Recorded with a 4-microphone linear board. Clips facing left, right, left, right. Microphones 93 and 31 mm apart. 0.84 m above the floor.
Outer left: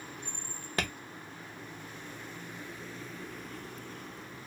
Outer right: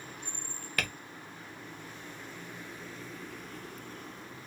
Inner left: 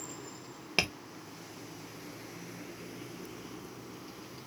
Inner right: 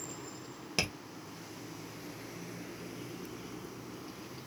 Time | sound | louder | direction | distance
0.8 | tapping | outer left 2 dB, inner left 4 dB | 25° left (ahead or behind) | 0.6 m